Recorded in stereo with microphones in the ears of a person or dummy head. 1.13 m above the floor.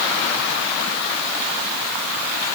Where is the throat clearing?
No throat clearing in this recording.